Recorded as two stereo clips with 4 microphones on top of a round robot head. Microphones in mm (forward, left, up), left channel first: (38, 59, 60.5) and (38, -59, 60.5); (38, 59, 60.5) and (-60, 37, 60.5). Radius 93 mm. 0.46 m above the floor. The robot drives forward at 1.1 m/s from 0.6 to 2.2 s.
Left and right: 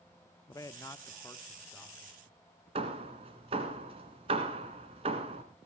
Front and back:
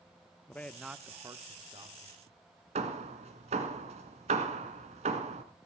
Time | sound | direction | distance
0.5 | a man speaking | 75° left | 0.8 m
2.8 | hammering | 140° right | 1.6 m